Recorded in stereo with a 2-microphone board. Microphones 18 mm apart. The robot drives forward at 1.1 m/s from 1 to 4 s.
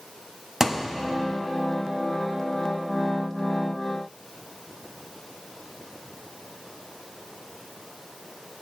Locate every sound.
0.6 s a thud: 20° right (ahead or behind), 0.8 m